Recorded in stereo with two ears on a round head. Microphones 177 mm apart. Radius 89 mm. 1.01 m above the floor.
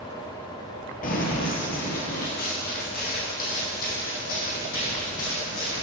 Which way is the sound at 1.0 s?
45° left (ahead or behind).